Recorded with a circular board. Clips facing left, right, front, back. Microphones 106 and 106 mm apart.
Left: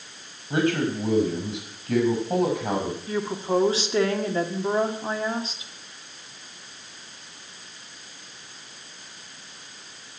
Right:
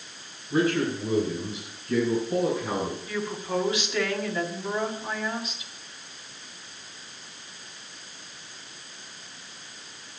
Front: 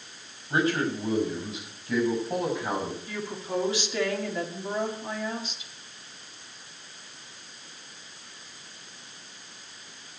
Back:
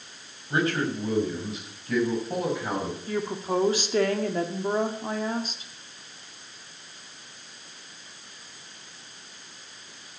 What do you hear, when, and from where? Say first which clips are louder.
0.5 s a man speaking: left 1 dB, even; 85° left, 4.5 m; by 3.0 s 90° left, 6 m
3.1 s a woman speaking: left 5 dB, back 5 dB; 145° left, 1.6 m